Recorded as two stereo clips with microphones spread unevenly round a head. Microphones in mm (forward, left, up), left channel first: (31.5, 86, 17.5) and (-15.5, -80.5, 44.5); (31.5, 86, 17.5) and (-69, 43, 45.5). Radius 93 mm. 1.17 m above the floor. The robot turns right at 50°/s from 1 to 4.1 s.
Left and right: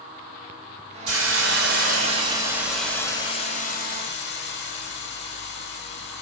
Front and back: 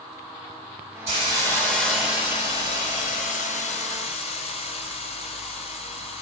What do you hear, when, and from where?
1.1 s a hiss: 100° right, 3.5 m; by 6.2 s 50° left, 3.5 m